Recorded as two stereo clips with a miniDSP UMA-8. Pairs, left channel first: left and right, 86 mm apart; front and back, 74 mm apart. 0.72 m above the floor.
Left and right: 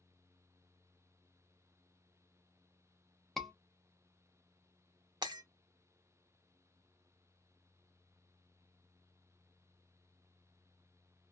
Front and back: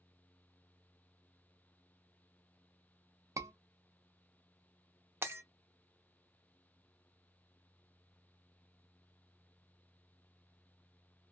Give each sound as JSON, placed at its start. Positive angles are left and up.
{"t": 3.4, "sound": "a scream", "azimuth_deg": 175, "distance_m": 0.6}
{"t": 5.2, "sound": "breaking glass", "azimuth_deg": -120, "distance_m": 0.5}